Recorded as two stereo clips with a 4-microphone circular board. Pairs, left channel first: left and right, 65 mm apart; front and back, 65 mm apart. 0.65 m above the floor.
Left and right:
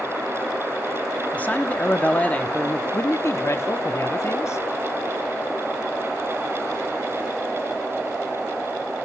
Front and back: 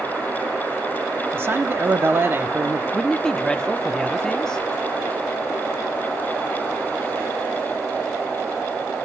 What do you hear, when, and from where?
1.3 s a man speaking: 145° left, 1.2 m
2.9 s a man speaking: 75° left, 0.9 m